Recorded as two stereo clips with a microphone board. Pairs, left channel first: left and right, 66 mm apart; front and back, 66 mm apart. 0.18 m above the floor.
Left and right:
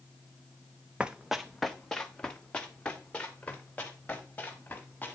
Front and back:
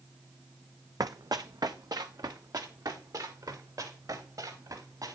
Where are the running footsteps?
160° right, 0.6 m; by 5.2 s 155° left, 3.5 m.